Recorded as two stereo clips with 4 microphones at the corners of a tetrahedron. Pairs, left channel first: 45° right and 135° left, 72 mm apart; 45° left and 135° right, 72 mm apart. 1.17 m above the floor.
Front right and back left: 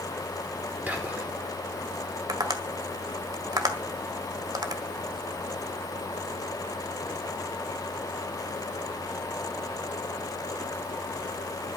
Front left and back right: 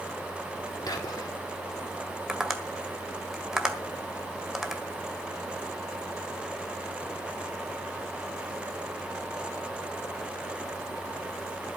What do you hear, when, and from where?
0.9 s whispering: 65° left, 4 m
2.3 s tapping: 145° left, 1.6 m